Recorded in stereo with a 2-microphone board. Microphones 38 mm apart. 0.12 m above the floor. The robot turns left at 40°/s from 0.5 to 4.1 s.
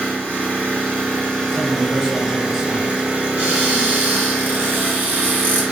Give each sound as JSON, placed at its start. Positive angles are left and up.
{"t": 0.0, "sound": "an engine running", "azimuth_deg": 55, "distance_m": 1.9}
{"t": 1.5, "sound": "a man speaking", "side_deg": -5, "distance_m": 1.2}
{"t": 3.4, "sound": "a cupboard door", "side_deg": -40, "distance_m": 1.9}